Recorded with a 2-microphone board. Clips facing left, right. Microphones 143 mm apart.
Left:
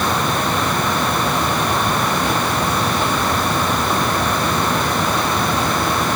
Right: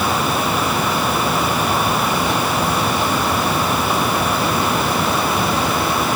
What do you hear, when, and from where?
Only background noise.